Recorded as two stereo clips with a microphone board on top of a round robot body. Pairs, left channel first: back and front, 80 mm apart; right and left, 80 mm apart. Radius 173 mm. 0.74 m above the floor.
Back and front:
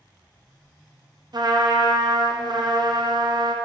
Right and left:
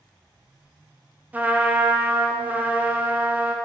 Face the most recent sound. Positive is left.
turn(degrees=20)